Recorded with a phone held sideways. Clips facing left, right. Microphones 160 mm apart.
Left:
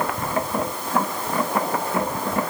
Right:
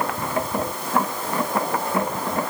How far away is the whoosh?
I don't hear a whoosh.